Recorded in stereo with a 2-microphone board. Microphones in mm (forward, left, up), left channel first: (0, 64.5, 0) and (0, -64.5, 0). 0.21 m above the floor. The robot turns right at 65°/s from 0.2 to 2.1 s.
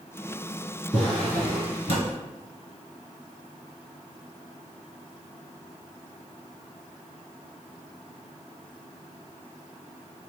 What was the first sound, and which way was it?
A drawer, 10° right.